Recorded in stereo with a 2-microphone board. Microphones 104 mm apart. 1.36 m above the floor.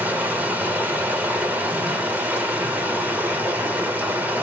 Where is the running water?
15° right (ahead or behind), 1.3 m.